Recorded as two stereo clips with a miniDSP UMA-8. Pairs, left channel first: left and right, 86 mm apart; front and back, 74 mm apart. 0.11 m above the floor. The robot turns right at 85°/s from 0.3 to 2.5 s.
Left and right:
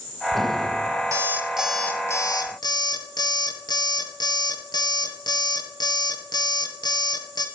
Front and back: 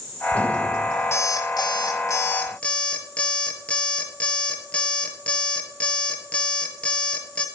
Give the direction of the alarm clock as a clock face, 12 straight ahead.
2 o'clock.